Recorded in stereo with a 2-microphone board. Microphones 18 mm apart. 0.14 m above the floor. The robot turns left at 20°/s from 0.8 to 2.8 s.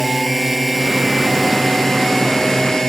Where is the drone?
Centre (ahead or behind); by 2.9 s 35° left (ahead or behind).